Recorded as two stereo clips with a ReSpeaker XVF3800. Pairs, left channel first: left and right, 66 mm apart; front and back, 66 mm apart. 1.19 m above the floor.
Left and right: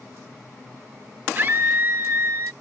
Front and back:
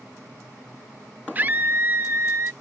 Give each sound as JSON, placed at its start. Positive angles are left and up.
{"t": 1.4, "sound": "a scream", "azimuth_deg": -130}